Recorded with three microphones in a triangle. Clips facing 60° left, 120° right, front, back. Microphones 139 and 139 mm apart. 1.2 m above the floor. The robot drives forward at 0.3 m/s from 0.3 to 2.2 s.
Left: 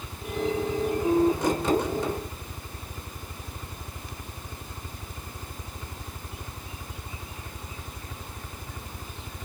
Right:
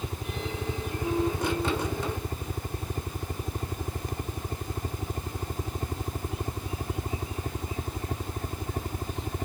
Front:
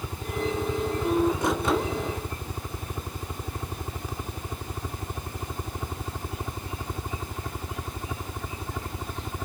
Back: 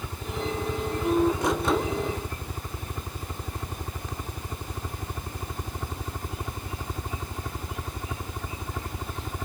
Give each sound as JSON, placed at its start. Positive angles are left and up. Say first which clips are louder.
{"t": 0.0, "sound": "a helicopter", "louder": "left 5 dB, front 2 dB", "azimuth_deg": -80}